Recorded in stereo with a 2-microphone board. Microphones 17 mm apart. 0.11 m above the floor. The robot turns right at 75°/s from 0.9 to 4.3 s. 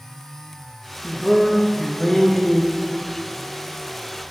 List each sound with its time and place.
1.0 s a man speaking: centre (ahead or behind), 1.5 m; by 2.9 s 20° left (ahead or behind), 1.5 m